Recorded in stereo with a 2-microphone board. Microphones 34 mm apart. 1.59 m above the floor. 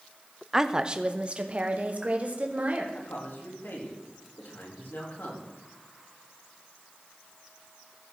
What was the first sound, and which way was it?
A woman speaking, 10° right (ahead or behind).